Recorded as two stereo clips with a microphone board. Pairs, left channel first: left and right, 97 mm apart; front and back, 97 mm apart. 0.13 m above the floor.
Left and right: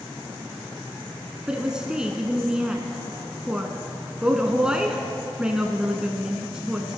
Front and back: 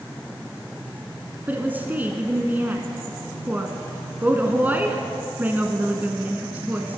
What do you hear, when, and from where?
1.5 s a woman speaking: 155° right, 1.0 m